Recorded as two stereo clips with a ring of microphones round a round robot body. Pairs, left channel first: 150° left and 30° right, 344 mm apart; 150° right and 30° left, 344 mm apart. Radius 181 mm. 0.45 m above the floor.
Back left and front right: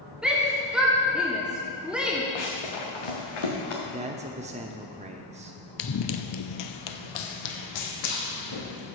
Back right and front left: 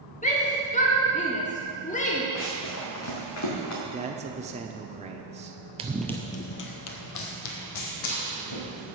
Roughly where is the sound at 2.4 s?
Behind left.